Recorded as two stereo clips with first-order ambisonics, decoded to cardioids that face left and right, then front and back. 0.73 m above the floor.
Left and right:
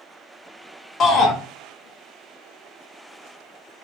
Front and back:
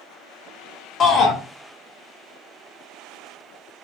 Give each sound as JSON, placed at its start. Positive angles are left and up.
{"t": 1.0, "sound": "a shout", "azimuth_deg": 45, "distance_m": 0.7}